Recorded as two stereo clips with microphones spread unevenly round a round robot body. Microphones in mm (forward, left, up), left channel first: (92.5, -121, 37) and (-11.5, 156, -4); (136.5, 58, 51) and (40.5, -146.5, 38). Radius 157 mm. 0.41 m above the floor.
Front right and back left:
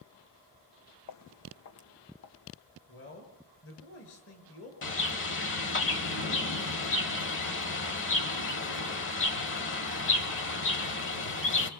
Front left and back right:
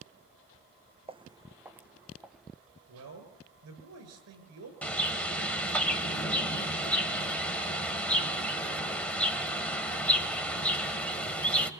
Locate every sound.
1.1 s footsteps: 50° right, 1.1 m; by 2.5 s 25° right, 2.5 m
2.9 s a man speaking: 120° right, 7 m
4.8 s a bird: 20° right, 3 m